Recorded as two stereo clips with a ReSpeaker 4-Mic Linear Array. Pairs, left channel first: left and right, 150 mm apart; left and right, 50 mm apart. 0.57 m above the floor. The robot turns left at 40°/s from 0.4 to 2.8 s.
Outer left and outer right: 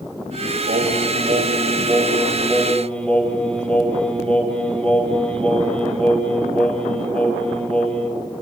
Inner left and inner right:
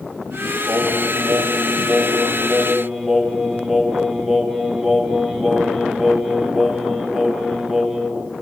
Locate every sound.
0.7 s singing: 100° right, 2.5 m; by 8.2 s 175° left, 2.5 m